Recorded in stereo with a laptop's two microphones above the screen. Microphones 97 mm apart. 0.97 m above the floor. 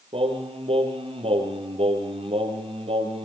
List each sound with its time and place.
0.1 s singing: 80° right, 5.5 m